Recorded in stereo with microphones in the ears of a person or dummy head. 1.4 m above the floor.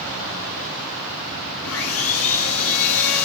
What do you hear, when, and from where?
1.6 s sawing: 85° left, 3 m